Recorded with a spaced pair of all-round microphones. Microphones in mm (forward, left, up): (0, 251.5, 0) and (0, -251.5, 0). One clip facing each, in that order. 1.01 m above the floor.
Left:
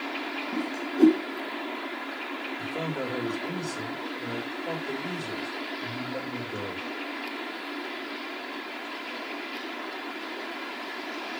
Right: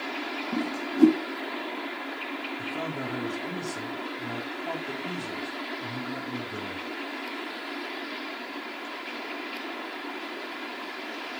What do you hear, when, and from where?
0.5 s a whoosh: 30° right (ahead or behind), 1.3 m
2.6 s a man speaking: 20° right (ahead or behind), 4 m